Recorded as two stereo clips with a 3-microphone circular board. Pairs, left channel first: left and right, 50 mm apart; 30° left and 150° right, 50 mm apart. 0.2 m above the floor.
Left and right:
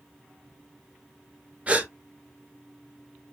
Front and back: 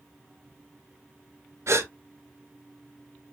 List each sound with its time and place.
1.7 s a gasp: 155° right, 0.9 m